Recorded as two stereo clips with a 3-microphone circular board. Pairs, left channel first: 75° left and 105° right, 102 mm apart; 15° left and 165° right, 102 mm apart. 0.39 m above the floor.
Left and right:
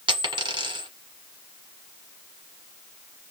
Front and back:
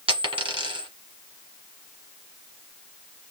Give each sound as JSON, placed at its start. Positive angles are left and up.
{"t": 0.1, "sound": "a dropped coin", "azimuth_deg": -145, "distance_m": 1.4}